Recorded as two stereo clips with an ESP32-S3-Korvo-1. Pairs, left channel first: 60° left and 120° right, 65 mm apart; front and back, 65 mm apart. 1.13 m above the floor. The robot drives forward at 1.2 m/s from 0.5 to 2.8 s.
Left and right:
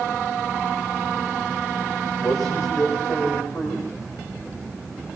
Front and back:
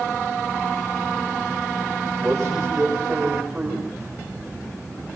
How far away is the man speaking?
About 6 m.